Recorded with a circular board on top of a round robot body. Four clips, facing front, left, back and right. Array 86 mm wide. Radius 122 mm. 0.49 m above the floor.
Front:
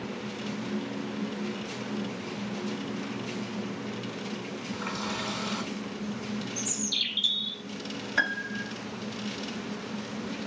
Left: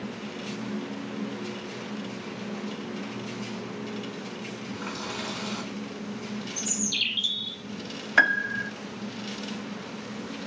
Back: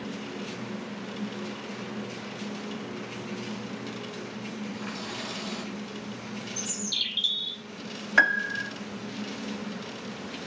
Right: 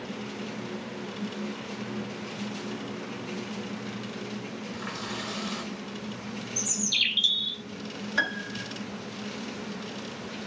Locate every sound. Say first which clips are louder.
4.7 s a running tap: left 2 dB, front 3 dB; 35° left, 4 m
6.6 s a bird: left 1 dB, front 1 dB; 80° right, 0.6 m
8.2 s a piano: left 8 dB, back 7 dB; 125° left, 0.7 m